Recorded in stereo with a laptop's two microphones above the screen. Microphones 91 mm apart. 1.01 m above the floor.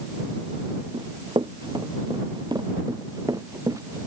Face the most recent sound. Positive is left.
turn(degrees=-35)  # may be behind; listen again after turning